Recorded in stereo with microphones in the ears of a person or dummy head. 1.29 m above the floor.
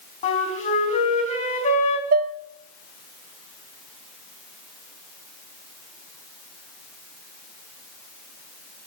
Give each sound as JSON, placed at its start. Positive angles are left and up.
{"t": 0.2, "sound": "a flute", "side_deg": 35, "distance_m": 4.0}
{"t": 2.1, "sound": "dishes clattering", "side_deg": -45, "distance_m": 0.6}